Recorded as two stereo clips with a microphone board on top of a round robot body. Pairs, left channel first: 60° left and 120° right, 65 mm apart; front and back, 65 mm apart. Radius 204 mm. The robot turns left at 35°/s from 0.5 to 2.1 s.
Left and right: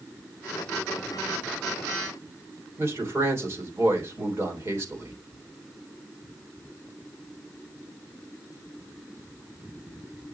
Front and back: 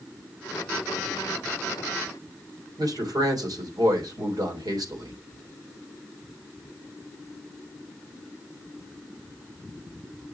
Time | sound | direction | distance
2.8 | a man speaking | 165° right | 3 m